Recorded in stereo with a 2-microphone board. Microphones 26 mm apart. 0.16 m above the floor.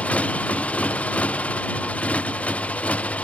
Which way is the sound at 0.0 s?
70° left (ahead or behind).